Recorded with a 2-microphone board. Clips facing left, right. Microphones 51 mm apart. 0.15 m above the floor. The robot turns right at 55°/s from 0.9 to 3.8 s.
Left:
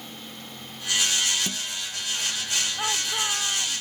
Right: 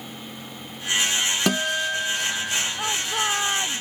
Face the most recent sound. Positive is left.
turn(degrees=-125)